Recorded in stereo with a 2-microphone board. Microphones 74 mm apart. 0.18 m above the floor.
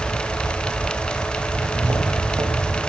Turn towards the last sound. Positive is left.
turn(degrees=-35)  # may be behind; listen again after turning